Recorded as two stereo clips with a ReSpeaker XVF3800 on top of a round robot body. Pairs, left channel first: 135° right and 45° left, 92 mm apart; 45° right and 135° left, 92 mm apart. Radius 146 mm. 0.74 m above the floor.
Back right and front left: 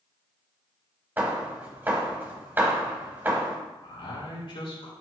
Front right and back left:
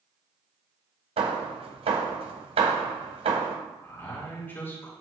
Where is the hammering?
115° left, 1.1 m.